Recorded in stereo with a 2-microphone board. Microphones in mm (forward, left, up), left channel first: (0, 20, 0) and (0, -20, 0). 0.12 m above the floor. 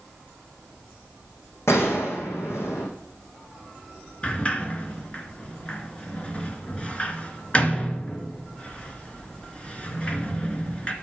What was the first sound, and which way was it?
A gunshot, 80° left.